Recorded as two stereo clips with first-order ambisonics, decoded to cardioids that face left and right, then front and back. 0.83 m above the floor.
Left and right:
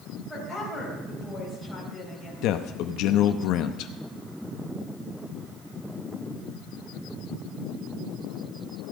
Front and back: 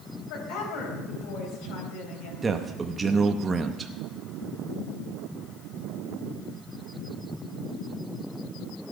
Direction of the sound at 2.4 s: 110° left.